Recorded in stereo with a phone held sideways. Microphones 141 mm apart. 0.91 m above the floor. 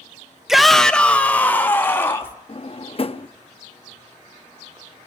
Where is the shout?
5° right (ahead or behind), 0.7 m; by 2.4 s 15° left (ahead or behind), 1.9 m.